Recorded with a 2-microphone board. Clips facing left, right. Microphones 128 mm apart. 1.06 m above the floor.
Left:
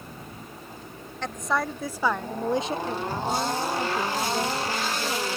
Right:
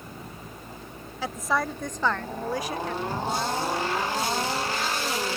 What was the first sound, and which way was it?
A woman speaking, 5° right (ahead or behind).